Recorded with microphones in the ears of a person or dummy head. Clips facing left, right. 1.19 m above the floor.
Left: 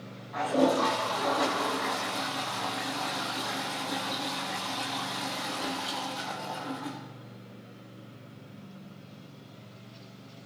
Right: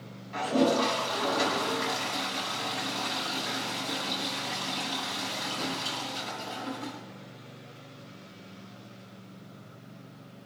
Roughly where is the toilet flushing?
Right.